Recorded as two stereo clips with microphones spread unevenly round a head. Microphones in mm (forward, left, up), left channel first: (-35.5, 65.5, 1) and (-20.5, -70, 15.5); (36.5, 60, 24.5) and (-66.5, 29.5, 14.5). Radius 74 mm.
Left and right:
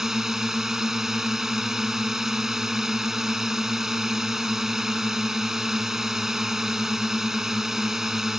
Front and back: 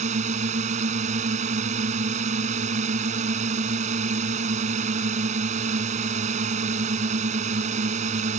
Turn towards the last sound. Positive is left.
turn(degrees=-170)